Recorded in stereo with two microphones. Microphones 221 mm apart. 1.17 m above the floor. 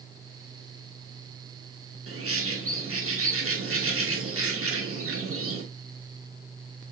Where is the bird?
85° right, 2.5 m.